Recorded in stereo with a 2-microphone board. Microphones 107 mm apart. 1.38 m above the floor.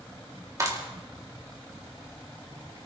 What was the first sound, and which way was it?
A clap, 30° right (ahead or behind).